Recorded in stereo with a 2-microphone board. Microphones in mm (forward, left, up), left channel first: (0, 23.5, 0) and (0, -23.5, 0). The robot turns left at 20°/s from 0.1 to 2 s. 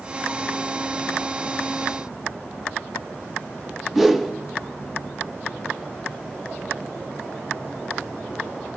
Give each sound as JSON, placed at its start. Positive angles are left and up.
{"t": 4.0, "sound": "a whoosh", "side_deg": -5, "distance_m": 1.3}